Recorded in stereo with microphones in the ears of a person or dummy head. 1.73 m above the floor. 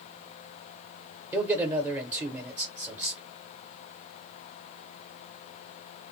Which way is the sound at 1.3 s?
10° right (ahead or behind).